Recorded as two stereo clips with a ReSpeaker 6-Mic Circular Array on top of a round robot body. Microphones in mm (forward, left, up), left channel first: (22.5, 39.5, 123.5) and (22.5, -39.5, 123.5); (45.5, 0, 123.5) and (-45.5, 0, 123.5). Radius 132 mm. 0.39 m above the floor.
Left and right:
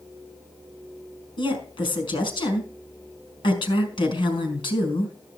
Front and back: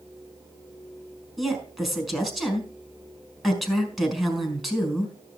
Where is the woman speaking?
95° left, 4 m.